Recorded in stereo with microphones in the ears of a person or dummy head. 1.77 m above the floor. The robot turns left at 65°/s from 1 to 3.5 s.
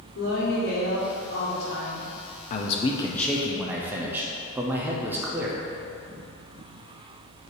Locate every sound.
0.1 s a woman speaking: 105° left, 2 m; by 2.1 s 35° left, 2 m
2.5 s a man speaking: 55° left, 0.6 m; by 5.7 s 10° right, 0.6 m